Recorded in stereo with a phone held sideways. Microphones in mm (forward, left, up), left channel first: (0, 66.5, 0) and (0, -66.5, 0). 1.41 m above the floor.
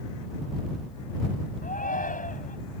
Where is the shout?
80° left.